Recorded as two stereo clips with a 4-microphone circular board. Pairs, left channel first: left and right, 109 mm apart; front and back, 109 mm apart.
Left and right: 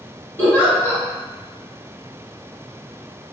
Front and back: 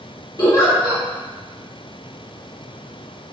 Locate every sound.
0.4 s a giggle: 30° left, 1.8 m